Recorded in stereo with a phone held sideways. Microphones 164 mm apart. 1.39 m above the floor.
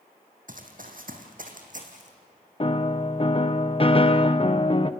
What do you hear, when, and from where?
0.5 s running footsteps: 60° right (ahead or behind), 3 m; by 2.1 s 50° right (ahead or behind), 3.5 m
2.6 s a piano: 35° left (ahead or behind), 0.7 m